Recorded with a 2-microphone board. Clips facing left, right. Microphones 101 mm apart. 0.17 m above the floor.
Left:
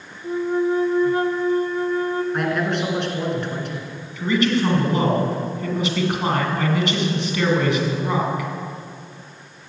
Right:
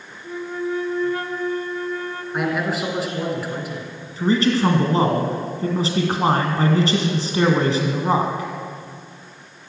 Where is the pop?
No pop in this recording.